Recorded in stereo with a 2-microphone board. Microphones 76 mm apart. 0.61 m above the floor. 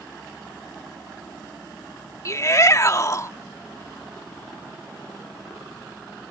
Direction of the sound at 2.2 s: 40° left (ahead or behind).